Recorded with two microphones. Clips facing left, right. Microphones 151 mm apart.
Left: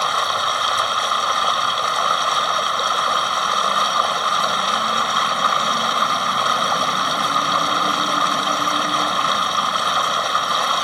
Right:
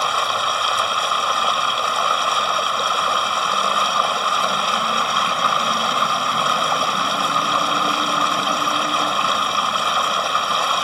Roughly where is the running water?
Centre.